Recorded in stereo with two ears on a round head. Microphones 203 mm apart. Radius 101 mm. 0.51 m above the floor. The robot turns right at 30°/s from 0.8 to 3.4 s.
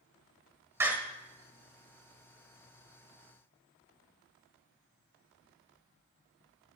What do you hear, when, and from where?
0.8 s a door slam: 10° right (ahead or behind), 1.4 m; by 0.9 s 5° right (ahead or behind), 1.4 m